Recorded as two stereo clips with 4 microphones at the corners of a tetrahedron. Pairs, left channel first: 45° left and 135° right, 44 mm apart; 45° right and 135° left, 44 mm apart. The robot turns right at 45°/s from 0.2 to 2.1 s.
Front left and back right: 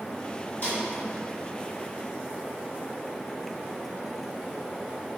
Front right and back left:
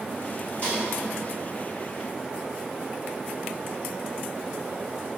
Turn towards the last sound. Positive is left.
turn(degrees=75)